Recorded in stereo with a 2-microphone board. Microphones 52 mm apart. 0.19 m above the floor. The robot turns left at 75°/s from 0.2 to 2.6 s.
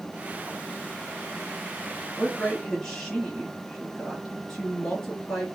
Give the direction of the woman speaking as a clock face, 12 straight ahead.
11 o'clock.